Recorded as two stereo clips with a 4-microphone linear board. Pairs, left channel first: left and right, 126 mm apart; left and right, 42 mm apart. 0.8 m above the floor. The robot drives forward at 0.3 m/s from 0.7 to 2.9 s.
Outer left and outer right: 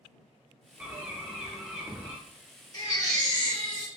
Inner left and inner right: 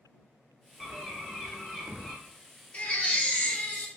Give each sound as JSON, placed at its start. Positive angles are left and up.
{"t": 0.8, "sound": "a bird", "side_deg": -10, "distance_m": 0.7}
{"t": 2.7, "sound": "a baby crying", "side_deg": 35, "distance_m": 1.0}